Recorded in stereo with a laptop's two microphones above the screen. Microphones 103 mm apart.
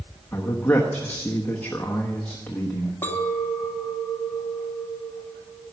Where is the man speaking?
20° left (ahead or behind), 1.1 m.